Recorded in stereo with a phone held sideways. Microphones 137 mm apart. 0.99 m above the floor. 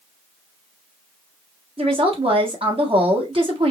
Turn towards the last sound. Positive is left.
turn(degrees=-40)  # may be behind; listen again after turning